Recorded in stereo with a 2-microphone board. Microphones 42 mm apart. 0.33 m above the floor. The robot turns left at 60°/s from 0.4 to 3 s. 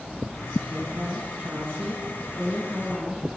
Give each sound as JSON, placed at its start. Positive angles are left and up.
{"t": 0.7, "sound": "a woman speaking", "azimuth_deg": -25, "distance_m": 5.0}